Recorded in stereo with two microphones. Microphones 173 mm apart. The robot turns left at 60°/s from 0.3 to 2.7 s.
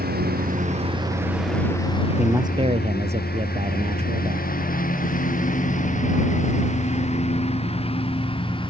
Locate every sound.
0.0 s a lawn mower: 65° right (ahead or behind); by 8.7 s 30° left (ahead or behind)
2.2 s a man speaking: 5° right; by 4.5 s 40° right